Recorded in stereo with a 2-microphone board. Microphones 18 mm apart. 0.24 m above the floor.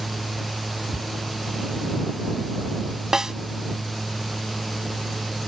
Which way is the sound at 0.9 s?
40° right (ahead or behind).